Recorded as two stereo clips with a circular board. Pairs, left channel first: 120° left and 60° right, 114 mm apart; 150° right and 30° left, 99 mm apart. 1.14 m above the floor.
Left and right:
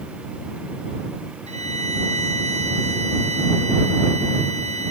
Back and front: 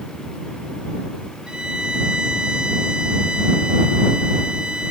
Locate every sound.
1.5 s a violin: 50° right